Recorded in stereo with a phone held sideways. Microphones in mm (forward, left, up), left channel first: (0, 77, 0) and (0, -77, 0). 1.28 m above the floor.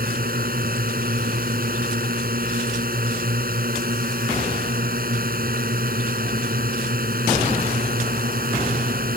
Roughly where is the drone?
Right.